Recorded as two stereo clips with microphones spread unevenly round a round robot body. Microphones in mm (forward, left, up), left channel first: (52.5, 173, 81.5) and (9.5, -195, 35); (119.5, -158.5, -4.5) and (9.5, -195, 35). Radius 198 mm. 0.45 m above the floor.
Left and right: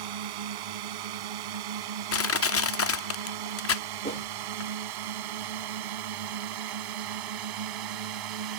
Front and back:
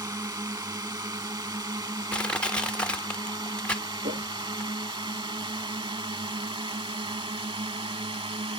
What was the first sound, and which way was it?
A drone, 100° right.